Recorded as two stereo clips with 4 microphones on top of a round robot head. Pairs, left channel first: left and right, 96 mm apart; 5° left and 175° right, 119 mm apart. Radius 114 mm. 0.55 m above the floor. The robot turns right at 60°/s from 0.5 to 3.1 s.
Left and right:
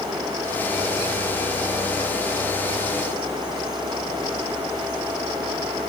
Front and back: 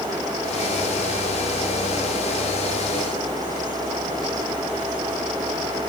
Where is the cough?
No cough in this recording.